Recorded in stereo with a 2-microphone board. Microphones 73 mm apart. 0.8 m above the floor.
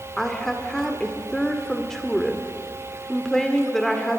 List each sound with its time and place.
0.2 s a woman speaking: 5° left (ahead or behind), 1.8 m